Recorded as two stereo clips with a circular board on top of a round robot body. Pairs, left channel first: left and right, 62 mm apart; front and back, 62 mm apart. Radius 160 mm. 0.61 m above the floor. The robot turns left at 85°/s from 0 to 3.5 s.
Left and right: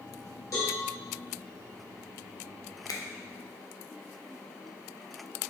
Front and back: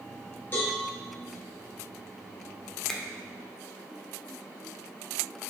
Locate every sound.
0.5 s a cowbell: 60° left, 1.5 m; by 0.8 s 40° left, 1.5 m
2.9 s a finger snap: 85° left, 0.7 m; by 3.0 s 75° left, 0.7 m